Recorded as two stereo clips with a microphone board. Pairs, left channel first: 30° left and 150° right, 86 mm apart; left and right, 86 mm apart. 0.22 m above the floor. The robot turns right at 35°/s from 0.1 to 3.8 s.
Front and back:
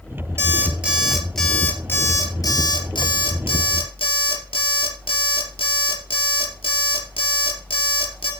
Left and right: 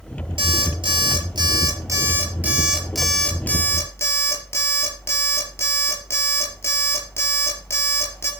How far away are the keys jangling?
No keys jangling in this recording.